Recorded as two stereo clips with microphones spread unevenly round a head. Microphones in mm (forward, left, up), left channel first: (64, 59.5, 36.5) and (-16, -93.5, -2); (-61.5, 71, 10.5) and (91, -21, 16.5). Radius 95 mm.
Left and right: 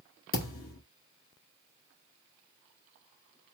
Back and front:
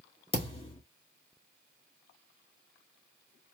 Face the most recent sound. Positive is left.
turn(degrees=90)